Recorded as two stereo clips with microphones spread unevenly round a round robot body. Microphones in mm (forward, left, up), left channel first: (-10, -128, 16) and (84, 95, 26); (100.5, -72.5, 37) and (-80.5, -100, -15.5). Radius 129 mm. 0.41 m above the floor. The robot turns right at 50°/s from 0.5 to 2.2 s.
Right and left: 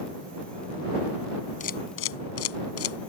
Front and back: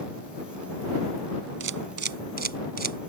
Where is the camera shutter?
175° right; by 3.1 s 145° right.